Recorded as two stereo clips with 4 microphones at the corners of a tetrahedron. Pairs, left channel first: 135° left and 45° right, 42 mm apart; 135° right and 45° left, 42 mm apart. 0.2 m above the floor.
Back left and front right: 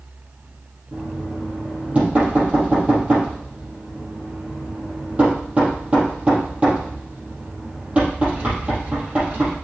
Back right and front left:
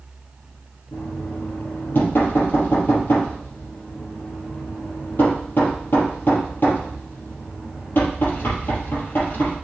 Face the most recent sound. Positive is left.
turn(degrees=-100)